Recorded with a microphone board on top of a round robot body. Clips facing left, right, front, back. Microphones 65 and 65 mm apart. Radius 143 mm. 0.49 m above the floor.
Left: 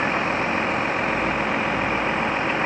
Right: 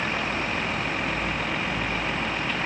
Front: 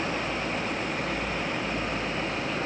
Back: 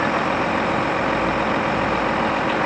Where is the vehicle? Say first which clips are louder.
Left 5 dB, back 10 dB; 160° left.